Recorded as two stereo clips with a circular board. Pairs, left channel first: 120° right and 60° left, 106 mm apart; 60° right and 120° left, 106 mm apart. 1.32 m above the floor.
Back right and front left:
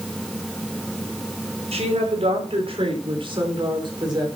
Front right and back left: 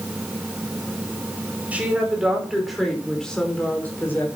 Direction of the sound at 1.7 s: 40° left.